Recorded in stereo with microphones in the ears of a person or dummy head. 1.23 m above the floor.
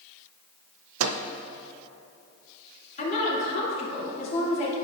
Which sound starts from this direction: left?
A woman speaking, at 3.0 s.